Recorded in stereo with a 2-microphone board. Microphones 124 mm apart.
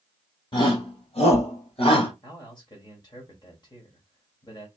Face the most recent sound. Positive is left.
turn(degrees=35)  # may be behind; listen again after turning